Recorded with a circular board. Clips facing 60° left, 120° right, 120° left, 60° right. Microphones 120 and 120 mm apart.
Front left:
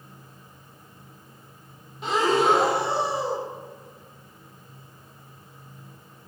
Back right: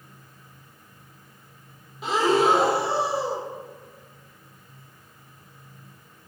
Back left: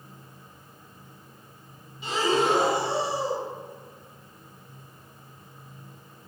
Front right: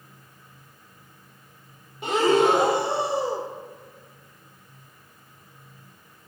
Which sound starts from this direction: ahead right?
Breathing, at 2.0 s.